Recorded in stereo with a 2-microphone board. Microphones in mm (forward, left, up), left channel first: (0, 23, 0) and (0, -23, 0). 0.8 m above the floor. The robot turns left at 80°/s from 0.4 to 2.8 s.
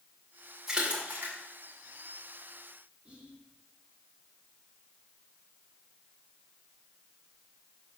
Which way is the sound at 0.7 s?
10° right (ahead or behind).